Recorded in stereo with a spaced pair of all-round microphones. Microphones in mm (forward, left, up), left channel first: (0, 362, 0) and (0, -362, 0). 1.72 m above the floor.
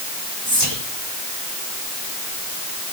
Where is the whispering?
30° right (ahead or behind), 2 m.